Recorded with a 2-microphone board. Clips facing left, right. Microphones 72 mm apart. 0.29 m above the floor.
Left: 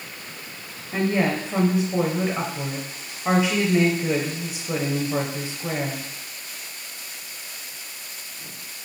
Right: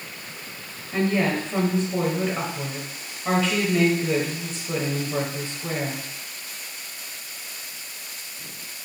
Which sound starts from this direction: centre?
A woman speaking, at 0.9 s.